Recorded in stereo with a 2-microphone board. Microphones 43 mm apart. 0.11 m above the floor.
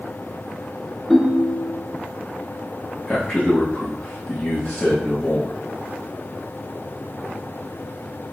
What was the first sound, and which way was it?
A ringtone, 5° left (ahead or behind).